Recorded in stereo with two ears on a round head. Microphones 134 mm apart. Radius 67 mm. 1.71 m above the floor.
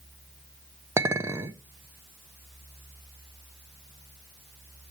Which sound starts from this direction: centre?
A clink, at 1.0 s.